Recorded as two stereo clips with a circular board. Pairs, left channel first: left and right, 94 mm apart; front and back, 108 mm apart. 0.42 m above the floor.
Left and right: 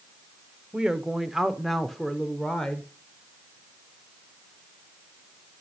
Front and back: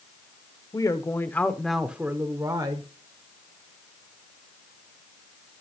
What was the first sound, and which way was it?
A woman speaking, 15° right.